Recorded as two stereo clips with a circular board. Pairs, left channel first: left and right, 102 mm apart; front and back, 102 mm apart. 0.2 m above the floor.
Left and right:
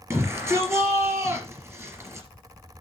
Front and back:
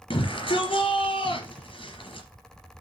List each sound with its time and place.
0.1 s a shout: 30° right, 3 m